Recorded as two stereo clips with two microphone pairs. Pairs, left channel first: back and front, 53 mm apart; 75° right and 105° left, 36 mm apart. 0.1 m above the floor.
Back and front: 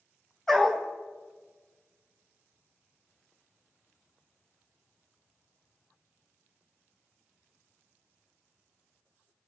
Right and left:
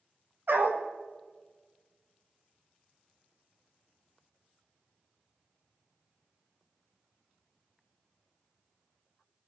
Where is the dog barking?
100° left, 1.9 m.